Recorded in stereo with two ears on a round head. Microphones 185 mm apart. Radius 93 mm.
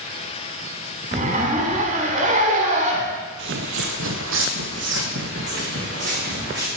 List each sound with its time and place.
1.1 s a zipper: 40° right (ahead or behind), 1.6 m
3.4 s footsteps: 60° right (ahead or behind), 0.8 m; by 6.7 s 45° right (ahead or behind), 3 m